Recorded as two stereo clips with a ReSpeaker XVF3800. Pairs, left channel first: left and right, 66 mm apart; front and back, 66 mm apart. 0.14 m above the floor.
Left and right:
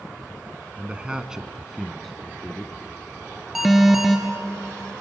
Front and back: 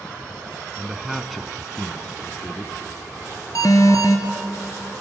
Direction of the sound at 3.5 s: 5° right.